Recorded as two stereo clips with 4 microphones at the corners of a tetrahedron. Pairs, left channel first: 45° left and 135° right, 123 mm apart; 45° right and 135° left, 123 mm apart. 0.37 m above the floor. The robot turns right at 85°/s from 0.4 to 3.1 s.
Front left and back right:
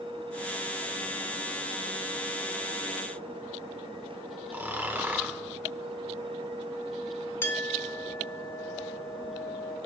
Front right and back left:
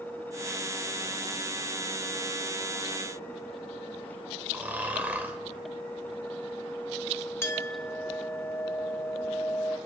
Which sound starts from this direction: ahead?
A clink, at 7.4 s.